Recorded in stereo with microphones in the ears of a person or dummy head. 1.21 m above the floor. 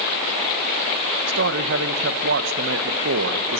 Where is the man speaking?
65° right (ahead or behind), 0.8 m.